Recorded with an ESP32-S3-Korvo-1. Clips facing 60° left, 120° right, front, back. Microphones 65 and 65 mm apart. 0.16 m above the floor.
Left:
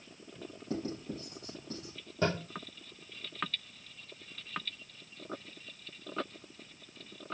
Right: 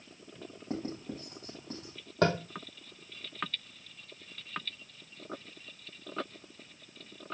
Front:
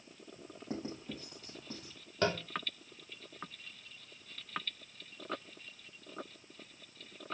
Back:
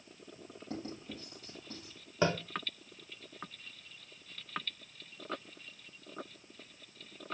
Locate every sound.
0.7 s writing: 65° right, 4 m
2.2 s tapping: 105° right, 1.8 m